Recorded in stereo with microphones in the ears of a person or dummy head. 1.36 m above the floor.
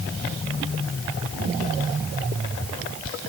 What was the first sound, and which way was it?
Only background noise.